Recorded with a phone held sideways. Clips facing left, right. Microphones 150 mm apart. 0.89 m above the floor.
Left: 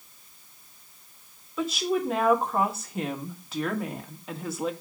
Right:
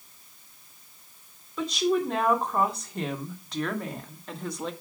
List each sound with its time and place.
1.6 s a woman speaking: 5° left (ahead or behind), 3 m